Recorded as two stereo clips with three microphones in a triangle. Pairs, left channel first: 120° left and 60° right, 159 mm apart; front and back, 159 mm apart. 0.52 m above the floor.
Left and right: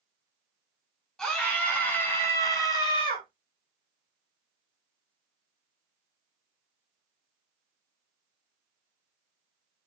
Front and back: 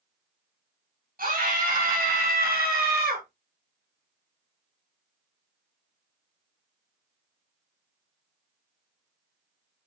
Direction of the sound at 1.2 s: 155° right.